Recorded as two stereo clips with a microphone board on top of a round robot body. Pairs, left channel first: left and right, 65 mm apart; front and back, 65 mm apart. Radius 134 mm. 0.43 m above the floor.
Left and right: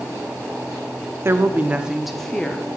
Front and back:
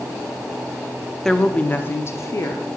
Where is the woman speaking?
80° right, 0.9 m; by 2.7 s 25° left, 1.2 m.